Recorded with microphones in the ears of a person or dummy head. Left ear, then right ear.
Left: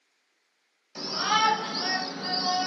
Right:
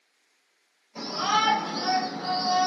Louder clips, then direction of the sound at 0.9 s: Even; 70° left (ahead or behind).